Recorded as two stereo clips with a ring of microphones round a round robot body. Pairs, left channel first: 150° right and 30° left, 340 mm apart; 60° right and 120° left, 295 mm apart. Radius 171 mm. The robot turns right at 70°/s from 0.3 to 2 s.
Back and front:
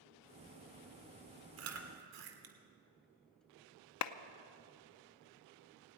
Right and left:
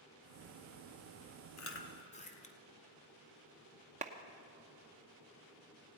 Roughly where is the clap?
Behind.